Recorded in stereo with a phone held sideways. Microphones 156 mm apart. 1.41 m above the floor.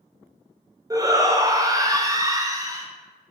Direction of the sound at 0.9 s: 20° right (ahead or behind).